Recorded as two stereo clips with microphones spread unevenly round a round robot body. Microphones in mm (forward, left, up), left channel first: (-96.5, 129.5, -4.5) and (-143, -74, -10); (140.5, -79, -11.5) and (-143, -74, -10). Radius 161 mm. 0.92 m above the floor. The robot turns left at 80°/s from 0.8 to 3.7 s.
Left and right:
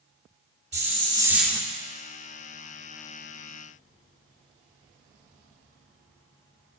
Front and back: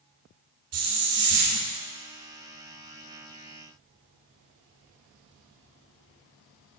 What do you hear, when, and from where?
0.7 s a hiss: 145° right, 1.6 m; by 1.6 s 150° left, 1.6 m